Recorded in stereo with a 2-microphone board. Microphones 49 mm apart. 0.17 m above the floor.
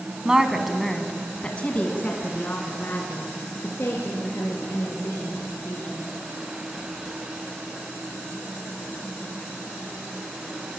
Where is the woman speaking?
15° right (ahead or behind), 1.7 m; by 6.0 s 70° left (ahead or behind), 5.5 m.